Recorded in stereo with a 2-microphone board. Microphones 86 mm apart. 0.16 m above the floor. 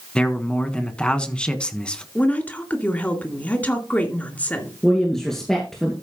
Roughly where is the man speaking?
Centre.